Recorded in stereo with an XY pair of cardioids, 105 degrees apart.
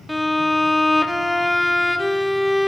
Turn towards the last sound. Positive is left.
turn(degrees=5)